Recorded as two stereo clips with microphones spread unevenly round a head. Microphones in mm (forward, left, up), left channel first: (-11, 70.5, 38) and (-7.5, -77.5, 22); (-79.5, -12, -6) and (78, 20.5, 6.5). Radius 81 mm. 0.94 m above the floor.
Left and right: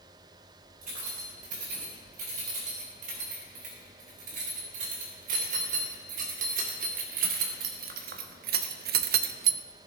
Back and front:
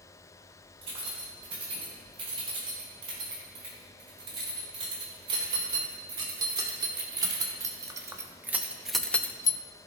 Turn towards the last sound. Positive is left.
turn(degrees=-110)